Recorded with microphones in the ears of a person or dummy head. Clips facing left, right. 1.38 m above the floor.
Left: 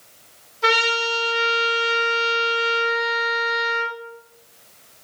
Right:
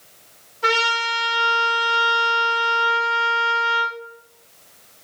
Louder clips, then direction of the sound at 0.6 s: Left 2 dB; 60° left (ahead or behind).